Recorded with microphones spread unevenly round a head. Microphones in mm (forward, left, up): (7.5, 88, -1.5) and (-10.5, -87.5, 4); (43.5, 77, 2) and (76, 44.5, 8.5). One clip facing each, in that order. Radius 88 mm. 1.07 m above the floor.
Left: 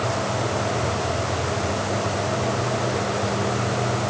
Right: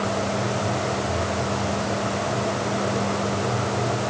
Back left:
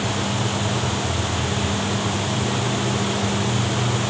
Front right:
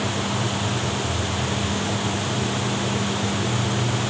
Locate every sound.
Only background noise.